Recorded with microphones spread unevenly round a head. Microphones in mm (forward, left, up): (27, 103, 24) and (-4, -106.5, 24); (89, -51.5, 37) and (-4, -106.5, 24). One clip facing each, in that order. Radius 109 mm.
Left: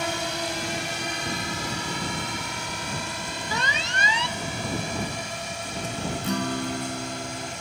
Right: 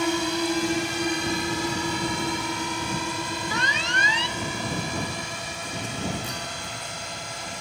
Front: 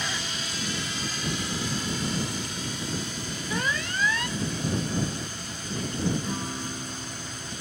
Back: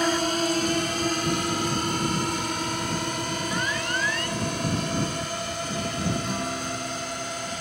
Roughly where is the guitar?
Behind left.